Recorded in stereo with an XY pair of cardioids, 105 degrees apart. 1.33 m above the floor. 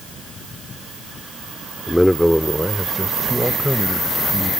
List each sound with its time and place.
1.9 s a man speaking: 5° left; by 4.5 s 5° right